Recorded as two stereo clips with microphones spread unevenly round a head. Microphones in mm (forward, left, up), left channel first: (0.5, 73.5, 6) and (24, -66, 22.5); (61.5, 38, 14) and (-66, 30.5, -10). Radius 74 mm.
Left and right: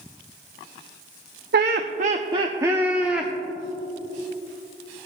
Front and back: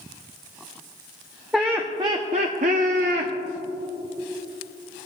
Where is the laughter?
90° right, 0.6 m; by 3.3 s 170° right, 1.0 m.